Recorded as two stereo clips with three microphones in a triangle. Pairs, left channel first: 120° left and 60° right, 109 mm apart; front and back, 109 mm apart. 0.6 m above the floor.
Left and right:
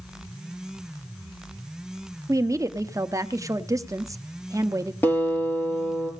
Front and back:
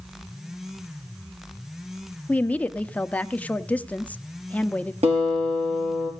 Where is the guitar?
170° right, 4.5 m.